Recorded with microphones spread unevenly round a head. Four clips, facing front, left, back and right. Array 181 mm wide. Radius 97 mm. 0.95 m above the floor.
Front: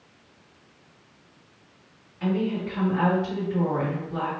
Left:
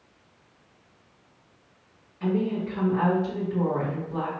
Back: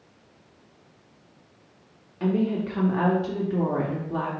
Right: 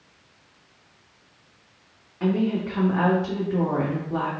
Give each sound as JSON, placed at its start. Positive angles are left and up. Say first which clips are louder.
{"t": 2.2, "sound": "a woman speaking", "louder": "right 3 dB, back 2 dB", "azimuth_deg": -155, "distance_m": 1.5}